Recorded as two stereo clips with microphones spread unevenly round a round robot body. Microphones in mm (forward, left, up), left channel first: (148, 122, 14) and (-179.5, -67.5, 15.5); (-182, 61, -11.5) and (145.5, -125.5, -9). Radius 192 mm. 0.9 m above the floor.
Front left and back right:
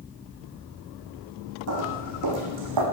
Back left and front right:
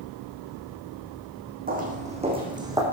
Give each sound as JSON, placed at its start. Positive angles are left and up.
{"t": 1.7, "sound": "footsteps", "azimuth_deg": -95, "distance_m": 3.5}